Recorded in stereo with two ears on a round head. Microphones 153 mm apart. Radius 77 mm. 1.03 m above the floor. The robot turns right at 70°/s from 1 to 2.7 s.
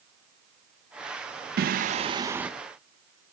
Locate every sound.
1.6 s singing: 70° right, 0.6 m; by 2.5 s 5° right, 0.6 m